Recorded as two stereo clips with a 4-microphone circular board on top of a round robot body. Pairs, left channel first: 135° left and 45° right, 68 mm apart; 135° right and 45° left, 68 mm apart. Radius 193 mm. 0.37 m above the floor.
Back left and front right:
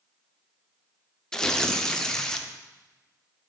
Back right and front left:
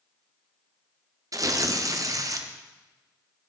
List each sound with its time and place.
1.3 s tearing paper: 55° left, 0.9 m